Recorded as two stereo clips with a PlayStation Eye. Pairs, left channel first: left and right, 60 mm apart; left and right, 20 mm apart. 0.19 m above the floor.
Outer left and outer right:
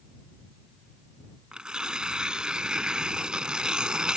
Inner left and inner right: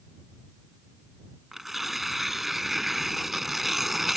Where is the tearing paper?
15° right (ahead or behind).